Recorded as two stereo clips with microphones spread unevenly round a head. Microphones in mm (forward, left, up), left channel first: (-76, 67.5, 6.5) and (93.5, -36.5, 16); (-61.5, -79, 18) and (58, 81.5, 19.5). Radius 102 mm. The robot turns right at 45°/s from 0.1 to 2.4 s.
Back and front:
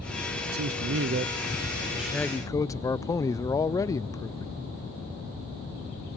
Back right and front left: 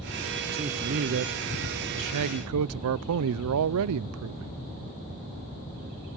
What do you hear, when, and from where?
0.5 s a man speaking: 10° right, 0.5 m; by 4.6 s 75° left, 0.5 m